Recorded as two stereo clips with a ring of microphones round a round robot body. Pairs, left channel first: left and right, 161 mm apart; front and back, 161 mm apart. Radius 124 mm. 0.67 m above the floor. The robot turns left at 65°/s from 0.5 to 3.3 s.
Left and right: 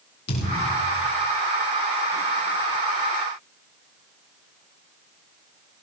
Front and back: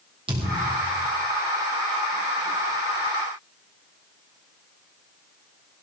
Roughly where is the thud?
Behind left.